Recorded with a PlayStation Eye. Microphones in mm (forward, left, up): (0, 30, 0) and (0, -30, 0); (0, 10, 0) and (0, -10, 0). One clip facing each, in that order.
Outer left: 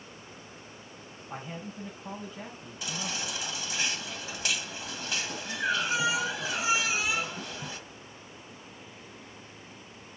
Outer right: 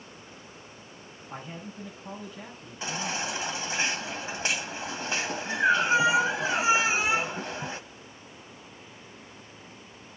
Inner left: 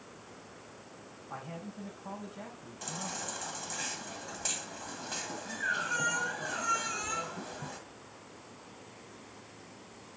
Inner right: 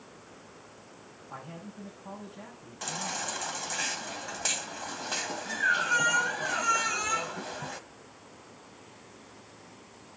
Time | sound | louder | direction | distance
1.3 | a man speaking | outer left 1 dB, inner left 1 dB | 10° left (ahead or behind) | 4.5 m
2.8 | a baby crying | outer right 5 dB, inner right 5 dB | 30° right (ahead or behind) | 1.8 m